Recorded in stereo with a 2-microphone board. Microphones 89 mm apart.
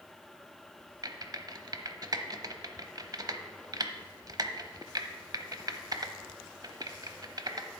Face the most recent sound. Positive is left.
turn(degrees=-45)  # may be behind; listen again after turning